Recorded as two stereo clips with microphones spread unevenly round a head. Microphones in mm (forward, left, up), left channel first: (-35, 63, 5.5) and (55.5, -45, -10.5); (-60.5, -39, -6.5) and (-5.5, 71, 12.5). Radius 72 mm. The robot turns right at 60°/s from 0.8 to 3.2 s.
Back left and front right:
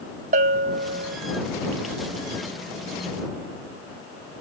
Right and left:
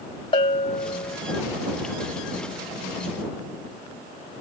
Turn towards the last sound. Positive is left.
turn(degrees=80)